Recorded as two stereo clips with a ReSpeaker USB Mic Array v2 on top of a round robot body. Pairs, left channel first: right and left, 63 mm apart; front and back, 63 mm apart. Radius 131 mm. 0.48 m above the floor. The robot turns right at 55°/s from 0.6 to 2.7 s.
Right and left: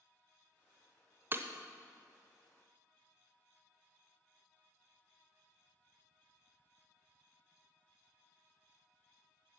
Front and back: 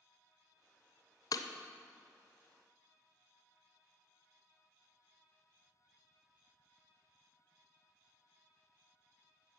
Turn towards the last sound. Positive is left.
turn(degrees=105)